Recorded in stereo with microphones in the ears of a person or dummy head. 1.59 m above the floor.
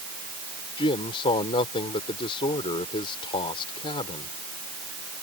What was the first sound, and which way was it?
A man speaking, 30° left (ahead or behind).